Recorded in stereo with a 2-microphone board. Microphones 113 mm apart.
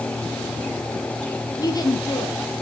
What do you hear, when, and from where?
1.6 s a woman speaking: 35° left (ahead or behind), 2.5 m